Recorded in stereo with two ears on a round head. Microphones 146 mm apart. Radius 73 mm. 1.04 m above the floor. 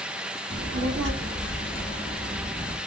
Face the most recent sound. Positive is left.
turn(degrees=-55)  # may be behind; listen again after turning